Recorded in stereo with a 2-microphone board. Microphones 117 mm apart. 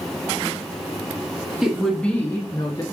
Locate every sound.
1.6 s a woman speaking: 5° right (ahead or behind), 1.1 m; by 2.8 s 35° left (ahead or behind), 1.3 m